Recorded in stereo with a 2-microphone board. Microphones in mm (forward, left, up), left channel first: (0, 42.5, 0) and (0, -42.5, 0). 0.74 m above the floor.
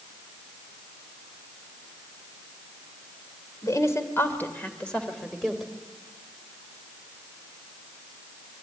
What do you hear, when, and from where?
3.6 s a woman speaking: 45° left (ahead or behind), 2.5 m; by 5.7 s 5° right (ahead or behind), 3 m